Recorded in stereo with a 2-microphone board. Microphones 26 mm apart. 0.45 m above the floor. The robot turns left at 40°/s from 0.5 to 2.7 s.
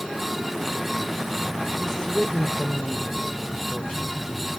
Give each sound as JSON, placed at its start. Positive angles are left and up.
{"t": 1.8, "sound": "a woman speaking", "azimuth_deg": 160, "distance_m": 1.9}